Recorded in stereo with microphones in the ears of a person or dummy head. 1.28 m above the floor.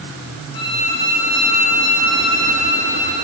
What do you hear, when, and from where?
0.5 s a violin: 25° left (ahead or behind), 3.5 m